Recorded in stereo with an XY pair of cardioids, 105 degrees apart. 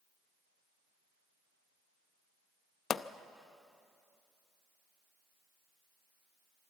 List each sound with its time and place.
2.9 s a pop: 55° left, 0.6 m